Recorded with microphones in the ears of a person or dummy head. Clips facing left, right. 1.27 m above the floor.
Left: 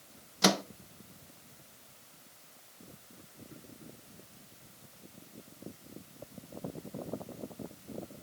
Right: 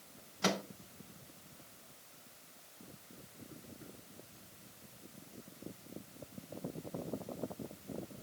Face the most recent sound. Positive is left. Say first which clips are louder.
# left 7 dB
turn(degrees=65)  # may be behind; listen again after turning